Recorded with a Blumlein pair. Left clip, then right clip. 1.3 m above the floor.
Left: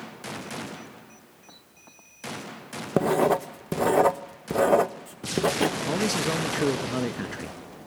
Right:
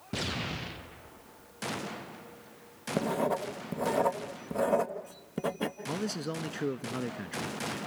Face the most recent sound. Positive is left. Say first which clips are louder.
# left 9 dB
turn(degrees=25)